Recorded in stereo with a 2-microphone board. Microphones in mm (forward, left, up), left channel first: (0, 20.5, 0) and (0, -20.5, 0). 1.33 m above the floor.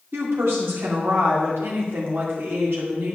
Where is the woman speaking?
85° right, 3 m.